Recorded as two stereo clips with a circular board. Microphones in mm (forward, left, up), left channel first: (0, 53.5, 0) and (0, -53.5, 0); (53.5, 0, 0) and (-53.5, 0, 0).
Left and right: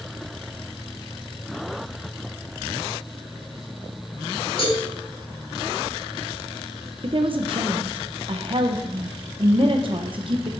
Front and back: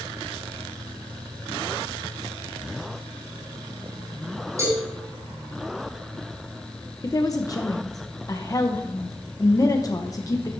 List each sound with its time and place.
4.6 s a cowbell: 120° left, 4 m
7.0 s a woman speaking: 55° right, 0.8 m